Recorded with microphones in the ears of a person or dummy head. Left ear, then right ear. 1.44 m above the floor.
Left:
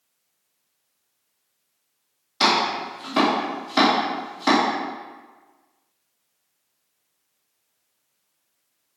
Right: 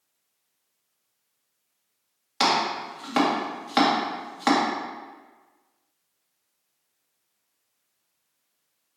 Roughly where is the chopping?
Right.